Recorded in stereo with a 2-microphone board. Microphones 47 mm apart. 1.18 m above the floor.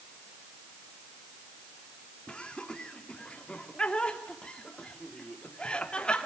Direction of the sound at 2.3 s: 25° left (ahead or behind).